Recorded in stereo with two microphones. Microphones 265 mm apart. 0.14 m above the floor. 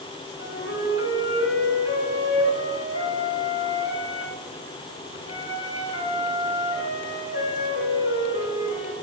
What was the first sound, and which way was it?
A flute, 65° left (ahead or behind).